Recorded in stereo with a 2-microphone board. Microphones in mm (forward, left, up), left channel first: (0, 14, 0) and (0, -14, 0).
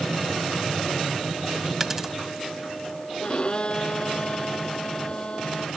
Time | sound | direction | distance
1.8 | a dropped coin | 15° right (ahead or behind) | ?
3.2 | a violin | 40° left (ahead or behind) | ?